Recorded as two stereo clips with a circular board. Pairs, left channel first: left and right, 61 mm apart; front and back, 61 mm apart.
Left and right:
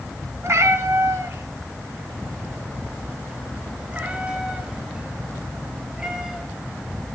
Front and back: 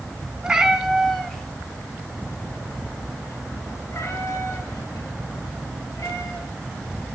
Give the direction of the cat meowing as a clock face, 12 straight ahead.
4 o'clock.